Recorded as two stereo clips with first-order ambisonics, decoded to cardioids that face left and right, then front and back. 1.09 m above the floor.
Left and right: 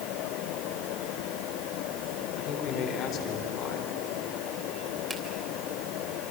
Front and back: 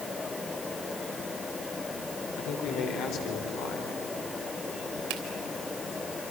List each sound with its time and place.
2.4 s a man speaking: 35° left, 4 m
5.1 s a finger snap: 170° right, 3 m